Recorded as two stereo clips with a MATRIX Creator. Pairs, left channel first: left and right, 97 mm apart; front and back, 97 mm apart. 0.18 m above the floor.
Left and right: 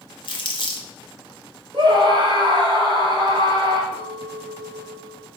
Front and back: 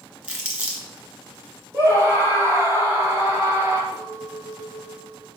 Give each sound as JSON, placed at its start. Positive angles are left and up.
{"t": 0.2, "sound": "crumpling", "azimuth_deg": 105, "distance_m": 2.0}
{"t": 1.7, "sound": "a scream", "azimuth_deg": -120, "distance_m": 3.0}
{"t": 3.9, "sound": "a clink", "azimuth_deg": -90, "distance_m": 3.0}